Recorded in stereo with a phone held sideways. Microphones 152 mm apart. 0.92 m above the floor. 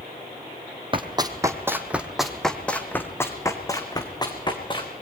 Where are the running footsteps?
35° right (ahead or behind), 1.9 m; by 4.9 s 30° left (ahead or behind), 4 m.